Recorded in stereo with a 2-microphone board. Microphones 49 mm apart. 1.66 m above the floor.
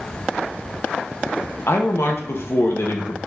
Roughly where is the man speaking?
Left.